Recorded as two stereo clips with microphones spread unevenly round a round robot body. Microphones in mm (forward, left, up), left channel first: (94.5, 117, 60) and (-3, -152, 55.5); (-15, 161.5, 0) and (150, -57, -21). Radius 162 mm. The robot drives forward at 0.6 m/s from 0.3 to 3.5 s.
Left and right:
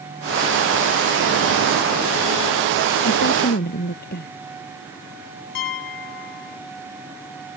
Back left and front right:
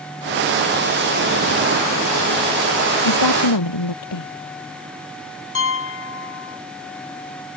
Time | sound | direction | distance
3.0 | a woman speaking | 130° left | ?
5.5 | a piano | 85° left | ?